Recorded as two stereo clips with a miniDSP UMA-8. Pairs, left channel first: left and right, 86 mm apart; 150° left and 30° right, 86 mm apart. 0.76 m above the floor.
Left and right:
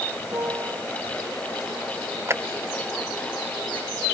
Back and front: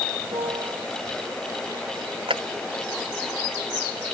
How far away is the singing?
I don't hear singing.